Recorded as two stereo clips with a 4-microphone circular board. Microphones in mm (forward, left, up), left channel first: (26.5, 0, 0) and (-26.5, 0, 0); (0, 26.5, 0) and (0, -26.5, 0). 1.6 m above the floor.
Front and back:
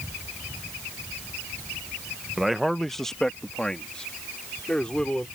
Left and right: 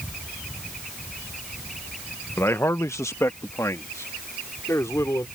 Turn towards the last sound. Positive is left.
turn(degrees=75)